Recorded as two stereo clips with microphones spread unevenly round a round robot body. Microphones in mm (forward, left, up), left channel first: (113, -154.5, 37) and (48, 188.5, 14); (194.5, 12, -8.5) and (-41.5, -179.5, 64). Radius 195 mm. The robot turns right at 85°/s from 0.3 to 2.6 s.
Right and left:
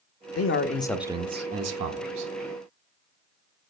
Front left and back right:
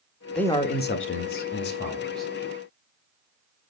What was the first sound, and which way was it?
A man speaking, 40° right.